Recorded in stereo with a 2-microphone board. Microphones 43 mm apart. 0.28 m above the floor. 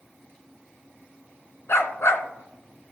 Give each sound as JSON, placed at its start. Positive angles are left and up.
{"t": 1.7, "sound": "a dog barking", "side_deg": 70, "distance_m": 1.2}